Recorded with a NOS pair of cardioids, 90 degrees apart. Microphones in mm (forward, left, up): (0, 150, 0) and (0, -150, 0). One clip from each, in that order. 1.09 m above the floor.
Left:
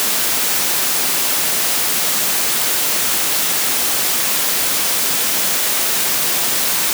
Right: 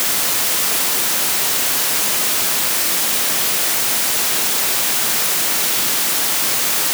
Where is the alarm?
I don't hear an alarm.